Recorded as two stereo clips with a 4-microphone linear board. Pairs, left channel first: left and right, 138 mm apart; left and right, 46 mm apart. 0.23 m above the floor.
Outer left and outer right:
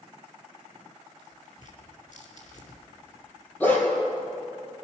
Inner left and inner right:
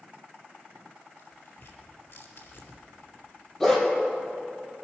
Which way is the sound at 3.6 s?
15° left (ahead or behind).